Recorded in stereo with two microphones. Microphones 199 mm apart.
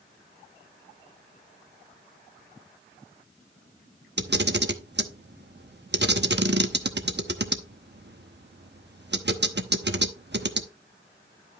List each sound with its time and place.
4.2 s a camera shutter: 60° right (ahead or behind), 0.9 m